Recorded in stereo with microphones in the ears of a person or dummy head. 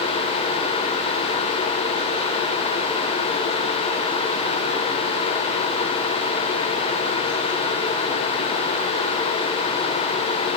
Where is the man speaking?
I don't hear a man speaking.